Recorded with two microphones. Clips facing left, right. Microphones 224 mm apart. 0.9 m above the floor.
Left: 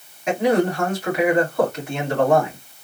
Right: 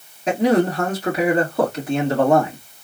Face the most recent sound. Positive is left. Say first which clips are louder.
# right 2 dB
turn(degrees=-35)  # may be behind; listen again after turning